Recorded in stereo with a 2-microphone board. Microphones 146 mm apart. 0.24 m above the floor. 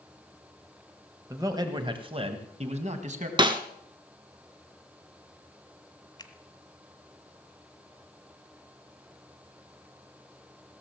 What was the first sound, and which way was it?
A man speaking, 20° right (ahead or behind).